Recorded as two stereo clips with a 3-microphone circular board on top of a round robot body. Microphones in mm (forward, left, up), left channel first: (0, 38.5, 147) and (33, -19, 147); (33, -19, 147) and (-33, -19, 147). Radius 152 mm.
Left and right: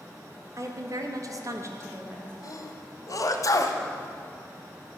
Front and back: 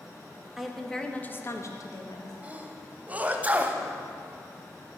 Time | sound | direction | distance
0.6 | a woman speaking | 95° right | 1.6 m
2.4 | a sneeze | 115° left | 1.4 m